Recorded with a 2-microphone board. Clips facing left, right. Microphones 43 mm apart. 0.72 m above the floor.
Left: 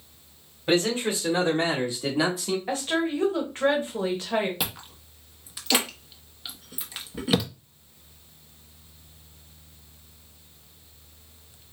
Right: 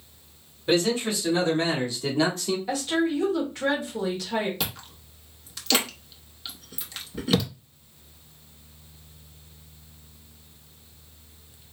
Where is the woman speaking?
35° left (ahead or behind), 1.3 m.